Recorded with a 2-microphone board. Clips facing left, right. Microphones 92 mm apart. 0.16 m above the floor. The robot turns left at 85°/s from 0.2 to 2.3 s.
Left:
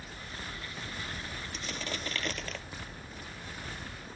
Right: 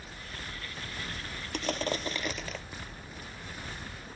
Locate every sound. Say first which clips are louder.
1.5 s crushing: right 9 dB; 110° right; by 2.6 s 175° right